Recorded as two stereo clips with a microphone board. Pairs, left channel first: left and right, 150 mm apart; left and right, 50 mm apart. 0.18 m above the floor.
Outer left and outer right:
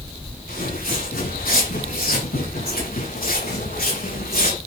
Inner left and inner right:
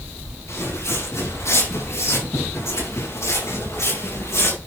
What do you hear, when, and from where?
0.5 s footsteps: 80° left, 7.5 m; by 4.6 s 75° left (ahead or behind), 5.5 m